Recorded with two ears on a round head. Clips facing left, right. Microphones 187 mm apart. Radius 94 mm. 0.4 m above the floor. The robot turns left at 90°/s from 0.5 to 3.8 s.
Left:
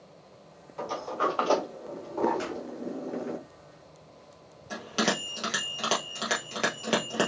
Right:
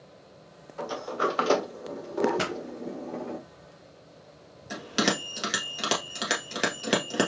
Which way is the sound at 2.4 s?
70° right (ahead or behind).